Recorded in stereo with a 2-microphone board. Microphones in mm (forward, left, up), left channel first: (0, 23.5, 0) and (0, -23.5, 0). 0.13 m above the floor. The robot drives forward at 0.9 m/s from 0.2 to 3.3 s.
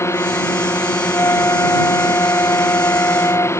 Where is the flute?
80° left; by 3.5 s 85° left.